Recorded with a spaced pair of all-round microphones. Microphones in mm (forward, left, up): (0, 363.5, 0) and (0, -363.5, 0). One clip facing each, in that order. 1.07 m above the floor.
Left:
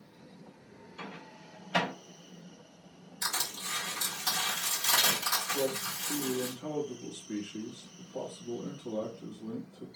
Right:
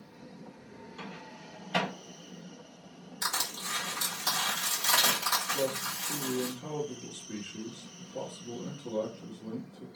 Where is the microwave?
30° right (ahead or behind), 1.1 m.